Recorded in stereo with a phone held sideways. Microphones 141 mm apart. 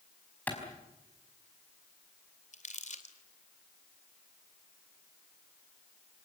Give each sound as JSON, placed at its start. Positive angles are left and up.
{"t": 0.5, "sound": "a clap", "side_deg": 10, "distance_m": 5.0}
{"t": 2.5, "sound": "crumpling", "side_deg": 60, "distance_m": 2.5}